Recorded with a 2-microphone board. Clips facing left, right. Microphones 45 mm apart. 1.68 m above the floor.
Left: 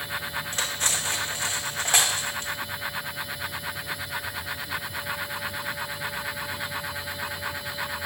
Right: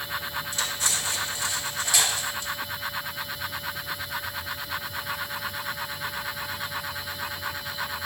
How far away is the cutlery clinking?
About 1.2 m.